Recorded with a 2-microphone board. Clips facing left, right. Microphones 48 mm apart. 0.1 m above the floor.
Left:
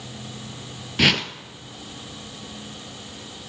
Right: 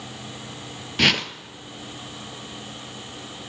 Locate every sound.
1.0 s a whoosh: centre (ahead or behind), 0.6 m